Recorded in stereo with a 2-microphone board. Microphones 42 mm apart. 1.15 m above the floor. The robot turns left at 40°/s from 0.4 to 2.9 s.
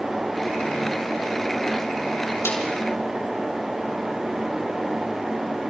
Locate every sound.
2.5 s a snare drum: 85° left, 6.5 m